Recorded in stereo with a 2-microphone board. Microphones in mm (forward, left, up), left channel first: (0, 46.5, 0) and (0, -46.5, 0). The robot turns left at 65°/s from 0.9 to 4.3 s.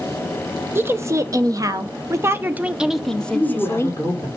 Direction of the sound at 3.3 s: Straight behind.